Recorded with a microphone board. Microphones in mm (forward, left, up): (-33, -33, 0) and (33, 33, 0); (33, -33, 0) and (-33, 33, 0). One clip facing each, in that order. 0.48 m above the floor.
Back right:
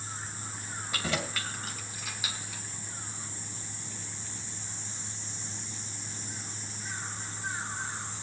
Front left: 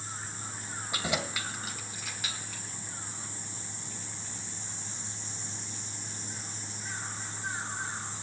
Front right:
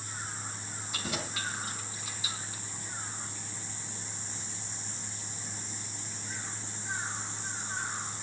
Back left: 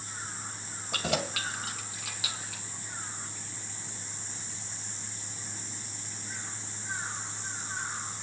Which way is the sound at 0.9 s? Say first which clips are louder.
Even, back left 6 dB; 115° left.